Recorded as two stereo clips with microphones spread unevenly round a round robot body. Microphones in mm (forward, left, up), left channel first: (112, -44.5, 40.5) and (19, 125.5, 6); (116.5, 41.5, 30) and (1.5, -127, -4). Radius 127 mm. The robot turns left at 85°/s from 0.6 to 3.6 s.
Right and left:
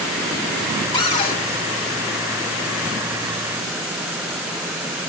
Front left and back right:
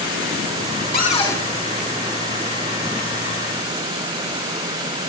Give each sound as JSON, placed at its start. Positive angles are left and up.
{"t": 0.9, "sound": "a cupboard door", "azimuth_deg": 10, "distance_m": 1.8}